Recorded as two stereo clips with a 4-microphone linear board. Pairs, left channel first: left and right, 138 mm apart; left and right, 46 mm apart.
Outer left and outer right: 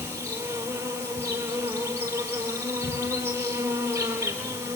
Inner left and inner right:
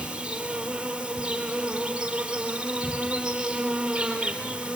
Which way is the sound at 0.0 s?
15° right (ahead or behind).